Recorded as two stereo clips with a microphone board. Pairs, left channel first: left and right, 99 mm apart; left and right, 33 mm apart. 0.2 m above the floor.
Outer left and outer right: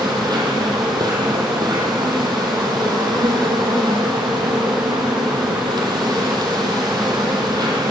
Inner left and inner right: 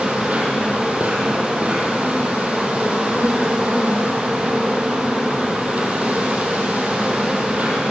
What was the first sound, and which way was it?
An insect, 45° right (ahead or behind).